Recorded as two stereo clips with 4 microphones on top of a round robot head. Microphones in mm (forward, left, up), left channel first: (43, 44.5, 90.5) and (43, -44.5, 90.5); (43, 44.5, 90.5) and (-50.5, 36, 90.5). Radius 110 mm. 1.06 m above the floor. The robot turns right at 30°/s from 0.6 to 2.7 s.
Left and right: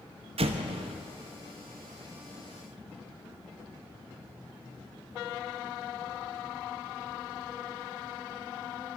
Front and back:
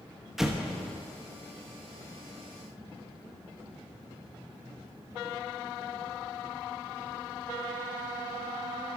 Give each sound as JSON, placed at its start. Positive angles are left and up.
{"t": 0.4, "sound": "an explosion", "azimuth_deg": -85, "distance_m": 1.0}